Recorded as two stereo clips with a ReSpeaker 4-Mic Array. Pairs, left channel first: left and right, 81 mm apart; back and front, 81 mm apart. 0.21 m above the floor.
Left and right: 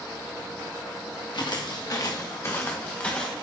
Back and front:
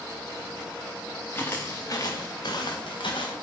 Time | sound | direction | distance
1.3 | footsteps | 115° left | 2 m